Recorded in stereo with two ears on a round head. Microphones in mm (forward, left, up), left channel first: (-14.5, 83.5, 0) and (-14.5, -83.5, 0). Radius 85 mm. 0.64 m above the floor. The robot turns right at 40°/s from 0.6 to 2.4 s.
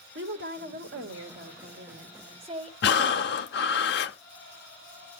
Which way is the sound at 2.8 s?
60° left (ahead or behind).